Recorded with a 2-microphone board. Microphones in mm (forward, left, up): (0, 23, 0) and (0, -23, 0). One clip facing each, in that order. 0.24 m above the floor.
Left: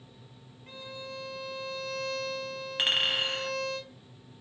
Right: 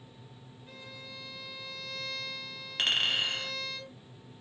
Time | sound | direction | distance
0.7 | a violin | 55° left (ahead or behind) | 1.3 m
2.8 | a clink | 10° left (ahead or behind) | 0.7 m